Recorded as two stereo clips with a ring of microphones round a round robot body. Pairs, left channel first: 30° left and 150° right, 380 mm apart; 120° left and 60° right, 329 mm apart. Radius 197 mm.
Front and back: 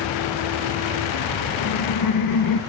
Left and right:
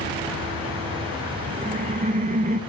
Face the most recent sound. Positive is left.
turn(degrees=5)